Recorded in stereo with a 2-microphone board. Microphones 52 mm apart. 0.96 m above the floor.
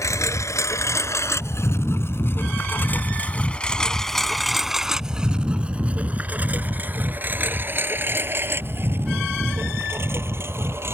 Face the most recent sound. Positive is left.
turn(degrees=-55)  # may be behind; listen again after turning